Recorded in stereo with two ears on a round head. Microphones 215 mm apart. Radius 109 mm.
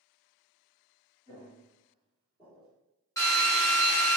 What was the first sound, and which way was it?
Footsteps, 30° left (ahead or behind).